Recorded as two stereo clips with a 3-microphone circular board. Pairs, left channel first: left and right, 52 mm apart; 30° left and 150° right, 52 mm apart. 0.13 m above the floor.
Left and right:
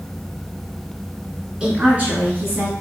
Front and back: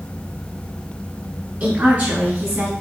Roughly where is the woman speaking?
Behind right.